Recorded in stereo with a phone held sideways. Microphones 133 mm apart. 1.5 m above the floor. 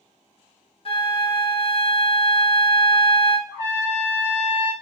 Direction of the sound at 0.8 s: 45° left (ahead or behind).